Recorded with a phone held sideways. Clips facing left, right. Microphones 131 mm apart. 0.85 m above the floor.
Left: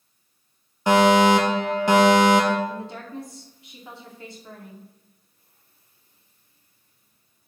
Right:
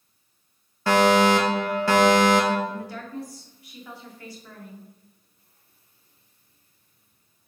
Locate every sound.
0.9 s a fire alarm: 20° left (ahead or behind), 1.7 m
2.7 s a woman speaking: 25° left (ahead or behind), 2.5 m